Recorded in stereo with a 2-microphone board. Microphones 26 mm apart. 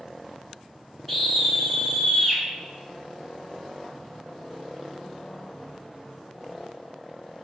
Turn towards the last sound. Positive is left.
turn(degrees=10)  # may be behind; listen again after turning